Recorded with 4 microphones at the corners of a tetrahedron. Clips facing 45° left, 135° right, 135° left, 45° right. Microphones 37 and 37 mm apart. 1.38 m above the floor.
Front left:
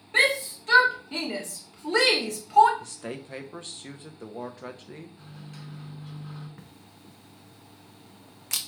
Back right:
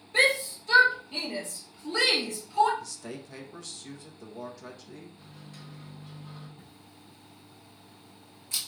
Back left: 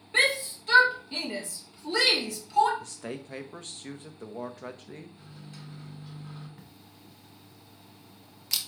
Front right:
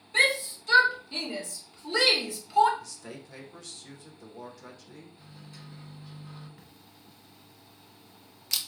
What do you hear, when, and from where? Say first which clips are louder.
0.1 s a shout: front left 1 dB, even; 75° left, 2 m; by 2.7 s 35° left, 1.6 m
2.8 s a man speaking: front left 3 dB, back left 5 dB; 90° left, 0.8 m
5.2 s a microwave: front left 3 dB, back left 2 dB; 70° left, 3 m
6.6 s a camera shutter: front left 2 dB, back left 2 dB; 50° left, 0.7 m